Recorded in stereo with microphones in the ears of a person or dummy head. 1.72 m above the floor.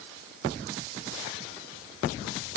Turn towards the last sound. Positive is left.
No sound to turn to.